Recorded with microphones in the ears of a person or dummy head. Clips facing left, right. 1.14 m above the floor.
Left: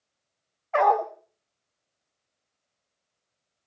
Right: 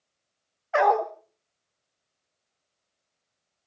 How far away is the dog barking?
About 1.0 m.